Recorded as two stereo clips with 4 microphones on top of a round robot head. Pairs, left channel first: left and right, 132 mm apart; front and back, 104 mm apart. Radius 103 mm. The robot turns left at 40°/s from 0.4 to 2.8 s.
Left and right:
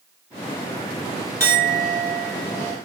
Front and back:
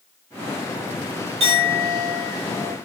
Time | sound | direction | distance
1.4 | a clink | 160° right | 1.6 m